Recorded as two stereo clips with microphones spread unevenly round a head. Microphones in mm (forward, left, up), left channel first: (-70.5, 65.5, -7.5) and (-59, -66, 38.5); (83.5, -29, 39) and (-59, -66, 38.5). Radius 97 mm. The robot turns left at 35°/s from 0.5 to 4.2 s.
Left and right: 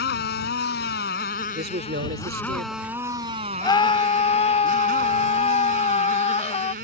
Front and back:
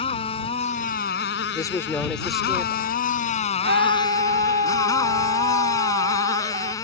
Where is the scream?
160° left; by 6.7 s 140° left.